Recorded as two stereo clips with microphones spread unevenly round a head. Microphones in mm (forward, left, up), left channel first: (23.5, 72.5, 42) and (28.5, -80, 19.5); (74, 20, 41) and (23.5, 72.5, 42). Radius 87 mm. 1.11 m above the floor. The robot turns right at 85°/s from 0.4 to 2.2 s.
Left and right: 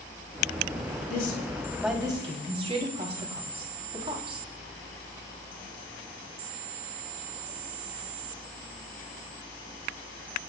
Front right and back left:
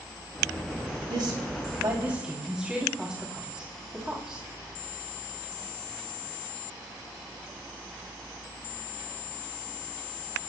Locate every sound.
1.1 s a woman speaking: 120° left, 3 m; by 4.4 s 145° right, 3 m